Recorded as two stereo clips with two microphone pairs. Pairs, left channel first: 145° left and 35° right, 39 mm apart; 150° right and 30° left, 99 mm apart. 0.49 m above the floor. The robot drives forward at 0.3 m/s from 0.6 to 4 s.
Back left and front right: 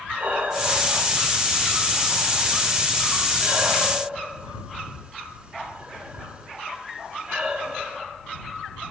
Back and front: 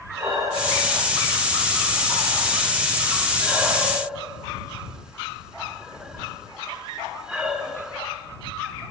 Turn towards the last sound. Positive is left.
turn(degrees=-40)